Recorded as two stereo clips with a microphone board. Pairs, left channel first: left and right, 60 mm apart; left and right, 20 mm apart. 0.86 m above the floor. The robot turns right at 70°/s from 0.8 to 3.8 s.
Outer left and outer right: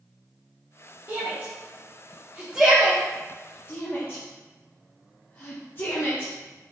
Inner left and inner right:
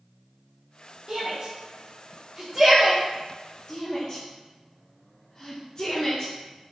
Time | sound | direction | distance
1.1 | a shout | 35° right (ahead or behind) | 1.0 m